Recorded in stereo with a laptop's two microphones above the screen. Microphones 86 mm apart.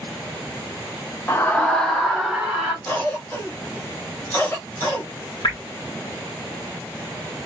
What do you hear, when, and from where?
1.3 s a scream: 30° left (ahead or behind), 0.6 m; by 2.8 s 10° right (ahead or behind), 1.2 m
2.9 s a cough: 25° left (ahead or behind), 1.2 m
5.4 s dripping: 55° left (ahead or behind), 1.6 m